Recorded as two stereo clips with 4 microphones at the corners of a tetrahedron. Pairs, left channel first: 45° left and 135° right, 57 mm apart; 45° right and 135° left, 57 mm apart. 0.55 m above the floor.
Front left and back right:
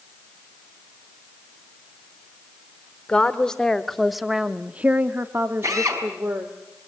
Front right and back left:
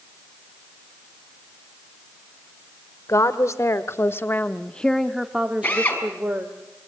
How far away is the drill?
About 5.5 m.